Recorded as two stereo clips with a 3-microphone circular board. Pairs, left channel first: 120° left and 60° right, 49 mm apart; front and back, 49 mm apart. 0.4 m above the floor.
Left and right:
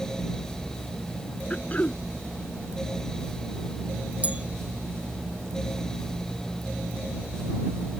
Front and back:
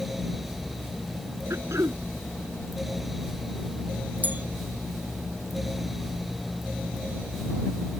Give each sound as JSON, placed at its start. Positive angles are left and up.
{"t": 1.5, "sound": "throat clearing", "azimuth_deg": 180}
{"t": 4.2, "sound": "a bell", "azimuth_deg": -125}